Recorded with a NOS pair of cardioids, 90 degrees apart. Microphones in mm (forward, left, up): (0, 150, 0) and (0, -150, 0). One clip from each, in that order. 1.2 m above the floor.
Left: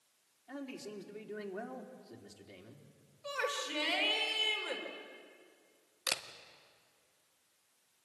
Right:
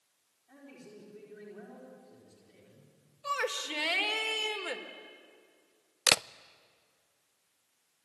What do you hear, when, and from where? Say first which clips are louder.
0.5 s a man speaking: left 7 dB; 70° left, 4 m
3.2 s a shout: right 4 dB; 40° right, 3.5 m
6.1 s a camera shutter: right 10 dB; 55° right, 0.6 m